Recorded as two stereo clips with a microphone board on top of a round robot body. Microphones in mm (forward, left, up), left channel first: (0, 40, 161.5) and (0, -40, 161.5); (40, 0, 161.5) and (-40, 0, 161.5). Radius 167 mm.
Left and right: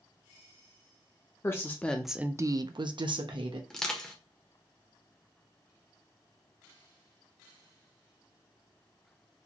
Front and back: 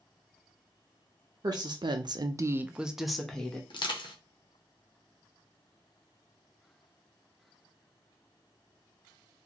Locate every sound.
1.4 s a woman speaking: 145° left, 0.8 m; by 3.6 s 80° right, 1.1 m
3.7 s crushing: 5° left, 1.1 m